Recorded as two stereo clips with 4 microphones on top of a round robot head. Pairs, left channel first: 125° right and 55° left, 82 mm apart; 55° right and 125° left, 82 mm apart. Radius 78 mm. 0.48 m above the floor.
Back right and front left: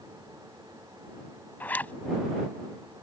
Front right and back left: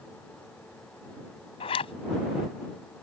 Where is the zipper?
55° right.